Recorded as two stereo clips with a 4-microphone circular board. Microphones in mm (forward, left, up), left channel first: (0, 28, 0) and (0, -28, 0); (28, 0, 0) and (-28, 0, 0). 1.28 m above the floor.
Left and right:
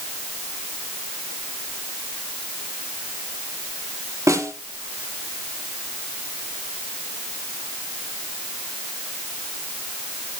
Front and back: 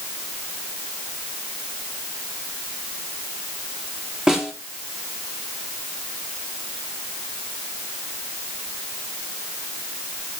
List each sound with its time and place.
4.3 s a snare drum: 105° right, 2.5 m